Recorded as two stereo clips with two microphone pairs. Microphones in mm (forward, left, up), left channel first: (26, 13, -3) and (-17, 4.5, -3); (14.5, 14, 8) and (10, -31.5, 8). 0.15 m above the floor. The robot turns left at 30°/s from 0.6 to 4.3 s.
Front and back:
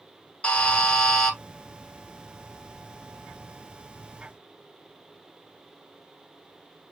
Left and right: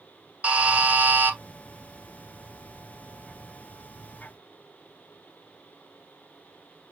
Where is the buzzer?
45° right, 1.2 m; by 1.4 s 70° right, 1.2 m.